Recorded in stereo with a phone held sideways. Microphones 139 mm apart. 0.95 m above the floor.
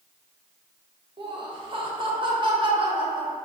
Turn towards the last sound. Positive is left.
turn(degrees=-35)  # may be behind; listen again after turning